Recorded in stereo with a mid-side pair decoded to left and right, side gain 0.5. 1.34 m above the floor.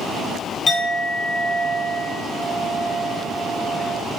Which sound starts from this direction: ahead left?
A clink, at 0.7 s.